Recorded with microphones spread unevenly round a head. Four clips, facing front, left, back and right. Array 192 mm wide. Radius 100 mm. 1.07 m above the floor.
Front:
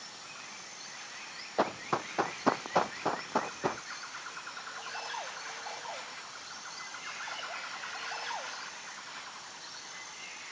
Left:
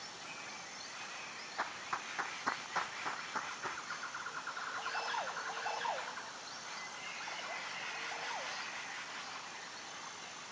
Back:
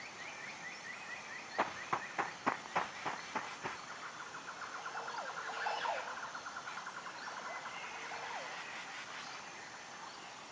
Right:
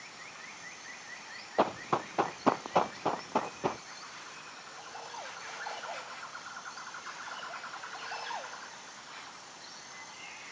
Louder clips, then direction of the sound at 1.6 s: Right 12 dB, front 6 dB; 60° right.